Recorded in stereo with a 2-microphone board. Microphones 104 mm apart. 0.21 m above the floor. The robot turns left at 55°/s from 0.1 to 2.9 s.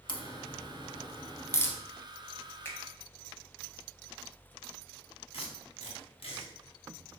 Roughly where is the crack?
Left.